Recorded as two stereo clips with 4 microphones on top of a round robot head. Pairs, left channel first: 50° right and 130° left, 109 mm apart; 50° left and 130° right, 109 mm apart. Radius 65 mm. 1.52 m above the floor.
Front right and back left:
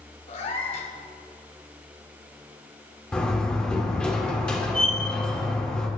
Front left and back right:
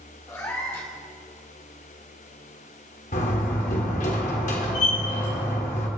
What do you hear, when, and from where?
0.3 s a cat meowing: 15° right, 2.5 m
3.1 s a door slam: 35° left, 2.5 m